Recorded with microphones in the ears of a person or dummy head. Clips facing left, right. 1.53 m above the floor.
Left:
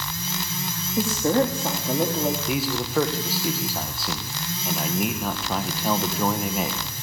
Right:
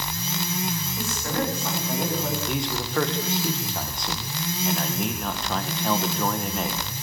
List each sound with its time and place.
1.0 s a woman speaking: 35° left (ahead or behind), 3.5 m; by 2.4 s 25° left (ahead or behind), 4.5 m
2.5 s a man speaking: 10° left (ahead or behind), 1.7 m